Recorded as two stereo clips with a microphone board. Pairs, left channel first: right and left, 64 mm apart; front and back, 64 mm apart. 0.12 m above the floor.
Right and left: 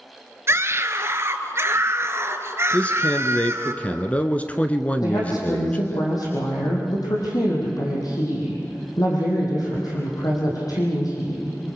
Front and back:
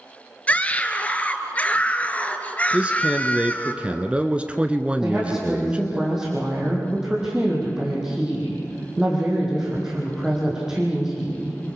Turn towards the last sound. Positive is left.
turn(degrees=-100)